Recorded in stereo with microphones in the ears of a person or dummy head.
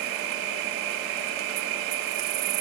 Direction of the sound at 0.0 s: 80° right.